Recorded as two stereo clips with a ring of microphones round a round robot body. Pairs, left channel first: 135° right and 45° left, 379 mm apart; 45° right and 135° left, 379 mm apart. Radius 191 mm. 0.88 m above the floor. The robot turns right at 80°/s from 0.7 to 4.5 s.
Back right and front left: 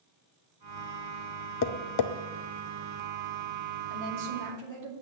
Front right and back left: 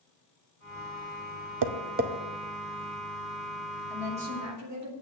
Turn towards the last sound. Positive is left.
turn(degrees=90)